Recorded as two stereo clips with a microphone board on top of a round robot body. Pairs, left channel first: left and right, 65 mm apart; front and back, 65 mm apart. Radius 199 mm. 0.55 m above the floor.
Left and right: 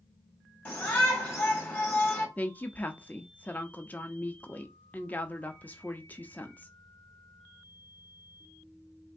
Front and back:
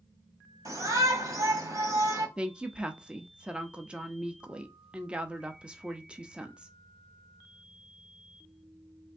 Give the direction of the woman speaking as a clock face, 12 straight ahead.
8 o'clock.